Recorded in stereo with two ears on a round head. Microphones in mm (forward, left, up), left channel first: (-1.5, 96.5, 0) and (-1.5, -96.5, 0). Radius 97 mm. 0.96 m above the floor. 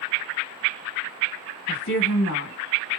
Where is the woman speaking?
65° left (ahead or behind), 1.5 m.